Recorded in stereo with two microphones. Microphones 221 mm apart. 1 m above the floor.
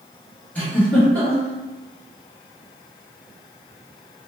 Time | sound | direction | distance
0.6 | a giggle | 5° left (ahead or behind) | 1.1 m